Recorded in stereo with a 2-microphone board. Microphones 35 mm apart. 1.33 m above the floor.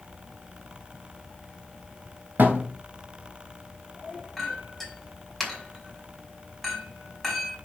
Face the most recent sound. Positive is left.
turn(degrees=0)  # may be behind; listen again after turning